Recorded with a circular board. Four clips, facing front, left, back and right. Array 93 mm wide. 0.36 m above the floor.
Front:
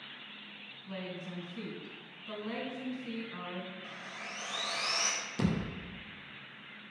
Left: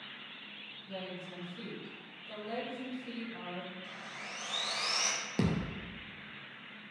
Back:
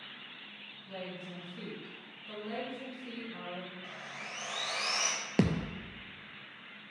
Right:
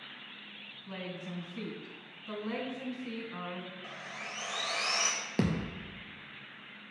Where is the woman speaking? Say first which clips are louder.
Right 2 dB, front 1 dB; 70° right, 3 m.